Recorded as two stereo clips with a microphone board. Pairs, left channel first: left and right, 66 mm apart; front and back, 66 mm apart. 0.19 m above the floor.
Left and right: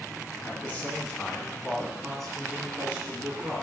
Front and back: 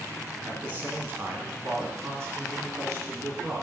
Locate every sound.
0.4 s a man speaking: 135° left, 2.0 m; by 3.6 s 155° right, 2.5 m